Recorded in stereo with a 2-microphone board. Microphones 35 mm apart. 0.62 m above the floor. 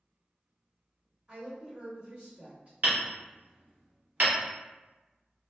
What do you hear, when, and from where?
1.3 s a woman speaking: 30° right (ahead or behind), 1.6 m; by 2.7 s 45° right (ahead or behind), 1.6 m
2.8 s hammering: 50° right (ahead or behind), 1.0 m